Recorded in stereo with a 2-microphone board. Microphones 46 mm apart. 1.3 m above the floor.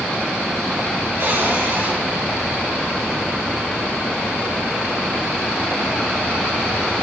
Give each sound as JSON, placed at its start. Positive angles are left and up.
{"t": 1.2, "sound": "a cupboard door", "side_deg": -60, "distance_m": 6.0}